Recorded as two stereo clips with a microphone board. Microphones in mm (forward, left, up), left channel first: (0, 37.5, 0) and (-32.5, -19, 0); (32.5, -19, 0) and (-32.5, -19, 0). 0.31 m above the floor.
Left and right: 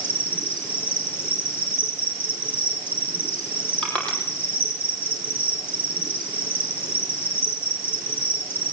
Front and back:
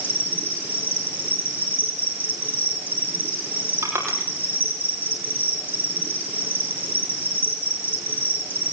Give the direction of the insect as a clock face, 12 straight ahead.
8 o'clock.